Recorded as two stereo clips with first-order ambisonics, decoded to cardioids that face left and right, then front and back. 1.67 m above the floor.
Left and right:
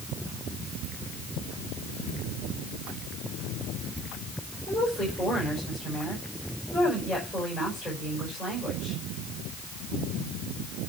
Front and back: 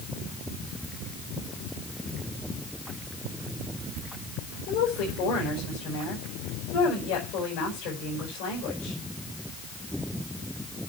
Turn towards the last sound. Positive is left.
turn(degrees=-5)